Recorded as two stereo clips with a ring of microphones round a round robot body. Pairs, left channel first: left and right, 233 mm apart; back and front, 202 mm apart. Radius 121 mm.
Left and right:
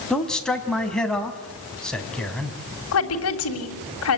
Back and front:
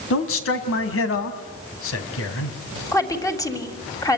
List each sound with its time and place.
0.1 s a man speaking: 175° left, 2.5 m
2.9 s a woman speaking: 105° left, 3 m